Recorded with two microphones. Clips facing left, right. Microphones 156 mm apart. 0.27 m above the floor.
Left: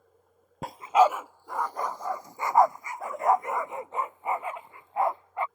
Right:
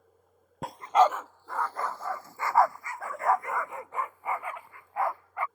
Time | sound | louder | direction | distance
0.6 | a dog barking | left 1 dB | centre (ahead or behind) | ?